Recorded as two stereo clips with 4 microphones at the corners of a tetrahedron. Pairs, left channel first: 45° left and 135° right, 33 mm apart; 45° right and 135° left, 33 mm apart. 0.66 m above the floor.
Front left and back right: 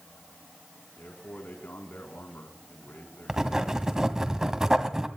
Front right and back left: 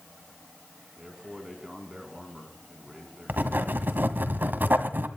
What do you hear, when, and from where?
1.0 s a man speaking: 60° left, 5.5 m
3.3 s writing: 150° left, 2 m